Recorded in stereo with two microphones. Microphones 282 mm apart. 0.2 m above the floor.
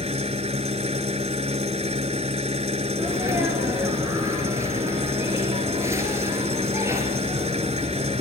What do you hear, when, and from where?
0.0 s an engine running: 25° right (ahead or behind), 0.9 m
3.0 s a sneeze: 10° right (ahead or behind), 3 m